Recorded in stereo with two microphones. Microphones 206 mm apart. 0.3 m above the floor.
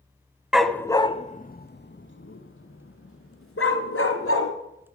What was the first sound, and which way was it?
A dog barking, 5° right (ahead or behind).